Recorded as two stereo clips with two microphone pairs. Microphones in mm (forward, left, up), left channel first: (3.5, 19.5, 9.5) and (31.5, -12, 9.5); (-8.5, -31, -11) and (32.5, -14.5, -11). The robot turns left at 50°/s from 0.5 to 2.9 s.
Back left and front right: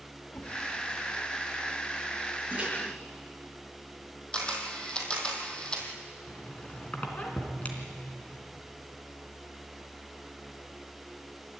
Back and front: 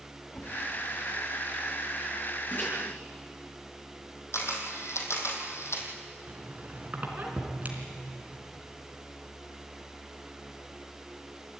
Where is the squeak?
75° left, 3 m.